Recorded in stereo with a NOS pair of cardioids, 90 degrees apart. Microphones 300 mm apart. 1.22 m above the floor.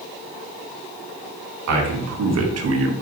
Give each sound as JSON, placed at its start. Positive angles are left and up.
{"t": 1.7, "sound": "a man speaking", "azimuth_deg": -65, "distance_m": 2.0}